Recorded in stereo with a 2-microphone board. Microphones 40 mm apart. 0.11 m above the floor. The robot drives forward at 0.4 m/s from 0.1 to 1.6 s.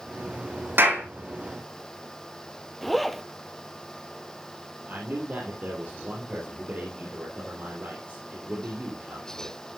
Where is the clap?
75° right (ahead or behind), 4.5 m.